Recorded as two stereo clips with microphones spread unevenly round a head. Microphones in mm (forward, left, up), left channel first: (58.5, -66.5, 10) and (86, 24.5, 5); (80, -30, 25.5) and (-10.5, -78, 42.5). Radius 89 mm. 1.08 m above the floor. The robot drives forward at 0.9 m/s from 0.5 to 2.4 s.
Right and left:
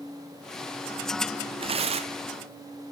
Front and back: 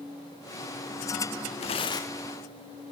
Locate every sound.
1.6 s tearing paper: 50° left, 0.7 m; by 2.3 s 115° left, 0.6 m